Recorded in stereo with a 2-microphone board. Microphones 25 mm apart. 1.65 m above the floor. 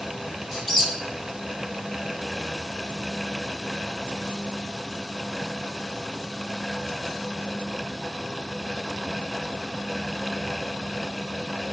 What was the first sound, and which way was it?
A squeak, 5° left (ahead or behind).